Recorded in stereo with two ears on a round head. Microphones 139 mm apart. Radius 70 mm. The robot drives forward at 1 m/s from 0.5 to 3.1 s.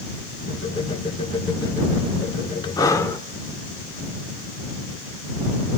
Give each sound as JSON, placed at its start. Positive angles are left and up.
{"t": 2.8, "sound": "breathing", "side_deg": 25, "distance_m": 0.5}